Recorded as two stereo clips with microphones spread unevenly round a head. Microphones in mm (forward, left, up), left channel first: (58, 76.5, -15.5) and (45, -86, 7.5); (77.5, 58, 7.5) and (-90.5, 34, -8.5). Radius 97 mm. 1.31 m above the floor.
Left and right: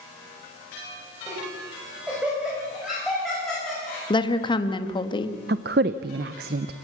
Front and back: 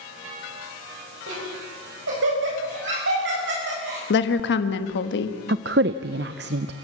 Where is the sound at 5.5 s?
130° right, 0.6 m.